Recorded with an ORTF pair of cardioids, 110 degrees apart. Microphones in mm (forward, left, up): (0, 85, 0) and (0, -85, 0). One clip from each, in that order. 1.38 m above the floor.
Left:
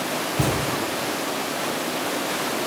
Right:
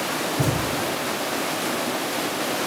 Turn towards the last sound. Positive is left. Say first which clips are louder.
# left 3 dB
turn(degrees=55)